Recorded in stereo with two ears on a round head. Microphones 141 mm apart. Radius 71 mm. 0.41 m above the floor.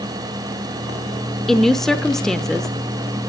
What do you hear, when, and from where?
1.5 s a woman speaking: 5° left (ahead or behind), 0.8 m